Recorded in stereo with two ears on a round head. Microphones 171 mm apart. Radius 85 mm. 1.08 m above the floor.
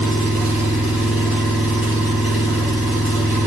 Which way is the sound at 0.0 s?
10° right (ahead or behind).